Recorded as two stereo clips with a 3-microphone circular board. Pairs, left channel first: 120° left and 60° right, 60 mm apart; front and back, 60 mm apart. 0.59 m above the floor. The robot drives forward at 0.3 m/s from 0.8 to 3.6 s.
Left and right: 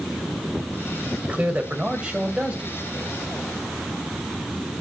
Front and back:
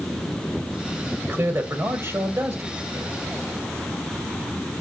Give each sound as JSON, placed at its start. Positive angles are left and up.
{"t": 1.2, "sound": "a man speaking", "azimuth_deg": -130, "distance_m": 2.0}